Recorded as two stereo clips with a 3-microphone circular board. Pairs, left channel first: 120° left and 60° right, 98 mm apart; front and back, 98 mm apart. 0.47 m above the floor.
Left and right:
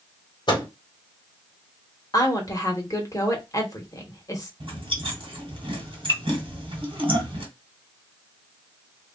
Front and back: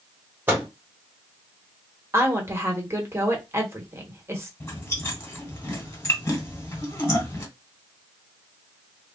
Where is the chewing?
60° right, 1.5 m.